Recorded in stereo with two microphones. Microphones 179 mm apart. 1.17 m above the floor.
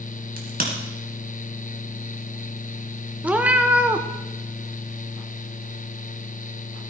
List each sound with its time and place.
0.4 s a crack: 55° right (ahead or behind), 2 m
3.2 s a cat meowing: 10° right (ahead or behind), 0.6 m